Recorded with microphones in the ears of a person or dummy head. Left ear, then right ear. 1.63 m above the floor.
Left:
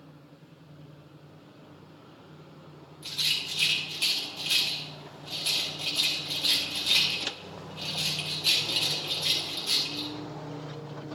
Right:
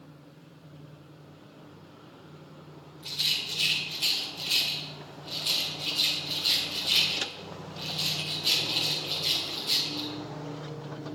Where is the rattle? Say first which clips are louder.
Even; 20° left (ahead or behind), 3 m.